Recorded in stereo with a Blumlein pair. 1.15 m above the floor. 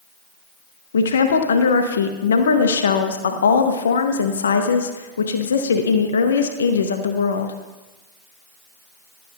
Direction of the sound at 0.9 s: 65° left.